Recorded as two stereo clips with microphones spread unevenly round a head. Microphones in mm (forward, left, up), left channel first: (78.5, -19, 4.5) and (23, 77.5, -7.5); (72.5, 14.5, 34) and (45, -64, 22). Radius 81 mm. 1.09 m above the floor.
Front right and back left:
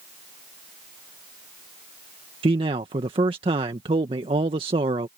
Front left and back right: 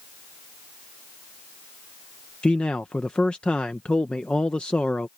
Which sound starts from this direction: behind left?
A man speaking, at 2.4 s.